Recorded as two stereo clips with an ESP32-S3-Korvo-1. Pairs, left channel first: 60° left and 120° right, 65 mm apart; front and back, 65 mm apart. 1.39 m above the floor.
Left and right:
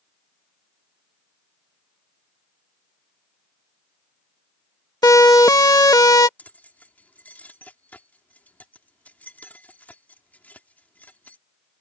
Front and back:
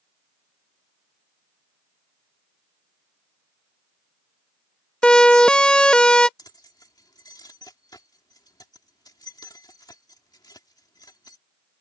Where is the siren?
75° left.